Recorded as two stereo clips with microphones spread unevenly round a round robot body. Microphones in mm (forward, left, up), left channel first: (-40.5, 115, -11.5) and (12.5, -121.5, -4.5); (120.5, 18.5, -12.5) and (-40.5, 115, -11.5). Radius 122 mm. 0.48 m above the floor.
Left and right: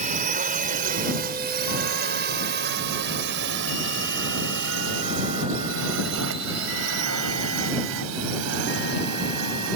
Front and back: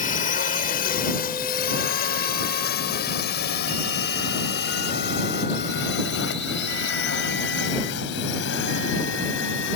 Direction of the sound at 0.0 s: 30° right.